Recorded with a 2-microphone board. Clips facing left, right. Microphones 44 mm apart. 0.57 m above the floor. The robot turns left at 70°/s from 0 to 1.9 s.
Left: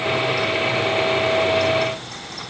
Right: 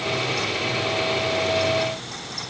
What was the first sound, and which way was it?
Only background noise.